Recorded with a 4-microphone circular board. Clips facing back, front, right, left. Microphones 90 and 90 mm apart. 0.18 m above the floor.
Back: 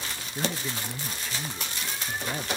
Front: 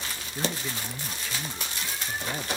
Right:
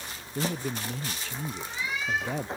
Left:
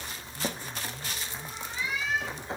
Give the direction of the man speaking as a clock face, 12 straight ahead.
3 o'clock.